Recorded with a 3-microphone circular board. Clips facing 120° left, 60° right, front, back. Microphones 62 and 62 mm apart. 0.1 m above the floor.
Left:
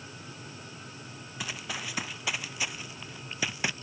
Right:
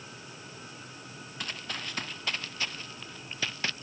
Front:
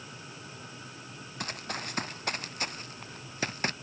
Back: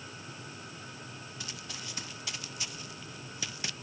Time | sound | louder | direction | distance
1.4 | running footsteps | left 1 dB, front 10 dB | 40° left | ?